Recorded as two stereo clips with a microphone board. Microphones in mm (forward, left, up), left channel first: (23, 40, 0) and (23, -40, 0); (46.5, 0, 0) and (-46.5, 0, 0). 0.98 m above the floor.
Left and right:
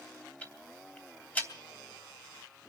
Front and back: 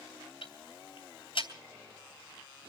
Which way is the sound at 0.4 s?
20° left.